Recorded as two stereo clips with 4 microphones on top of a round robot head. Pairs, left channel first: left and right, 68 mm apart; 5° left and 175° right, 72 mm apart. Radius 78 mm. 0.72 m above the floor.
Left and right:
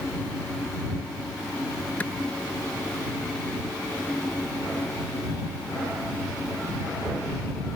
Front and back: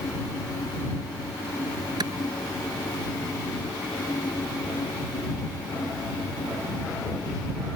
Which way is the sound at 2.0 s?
165° left.